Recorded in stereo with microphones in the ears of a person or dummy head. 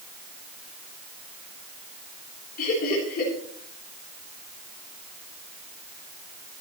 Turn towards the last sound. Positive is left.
turn(degrees=55)  # may be behind; listen again after turning